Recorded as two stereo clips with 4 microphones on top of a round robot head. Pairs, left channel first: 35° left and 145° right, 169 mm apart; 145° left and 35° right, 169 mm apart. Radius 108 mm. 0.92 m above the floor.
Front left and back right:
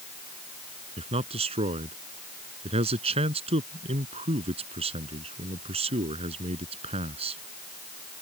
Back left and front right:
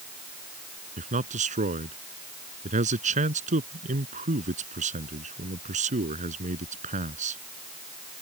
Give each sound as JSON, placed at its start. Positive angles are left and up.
{"t": 1.0, "sound": "a man speaking", "azimuth_deg": -85}